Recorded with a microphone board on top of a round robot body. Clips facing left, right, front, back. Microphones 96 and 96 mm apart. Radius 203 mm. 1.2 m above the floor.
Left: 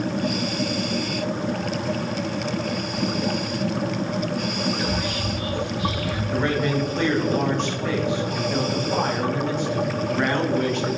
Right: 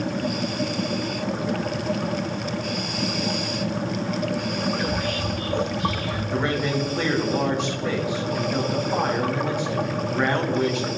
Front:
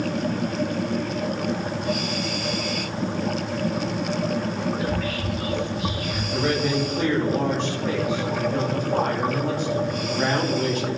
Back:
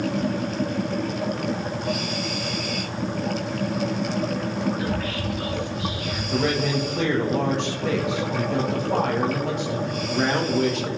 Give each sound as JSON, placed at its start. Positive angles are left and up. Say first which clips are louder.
{"t": 4.8, "sound": "whispering", "louder": "even, front 1 dB", "azimuth_deg": 170, "distance_m": 4.0}
{"t": 6.3, "sound": "a man speaking", "louder": "left 2 dB, even", "azimuth_deg": -170, "distance_m": 2.0}